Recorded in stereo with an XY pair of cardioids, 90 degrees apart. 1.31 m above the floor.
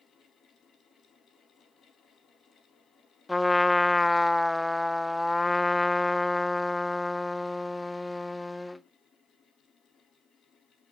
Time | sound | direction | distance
0.0 | a fan | 70° left | 2.5 m
3.3 | a trumpet | 15° left | 0.5 m